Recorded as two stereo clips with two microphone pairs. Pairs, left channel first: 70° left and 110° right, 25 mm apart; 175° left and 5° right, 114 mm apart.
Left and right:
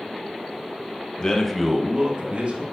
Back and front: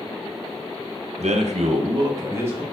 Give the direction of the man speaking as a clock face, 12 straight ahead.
12 o'clock.